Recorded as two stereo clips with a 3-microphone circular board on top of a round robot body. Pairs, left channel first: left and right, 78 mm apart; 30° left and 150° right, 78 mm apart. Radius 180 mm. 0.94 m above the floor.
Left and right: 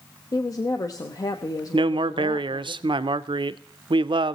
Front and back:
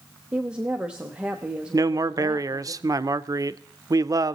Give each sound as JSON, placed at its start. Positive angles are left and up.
{"t": 0.3, "sound": "a woman speaking", "azimuth_deg": 135, "distance_m": 0.9}
{"t": 1.7, "sound": "a man speaking", "azimuth_deg": -105, "distance_m": 0.5}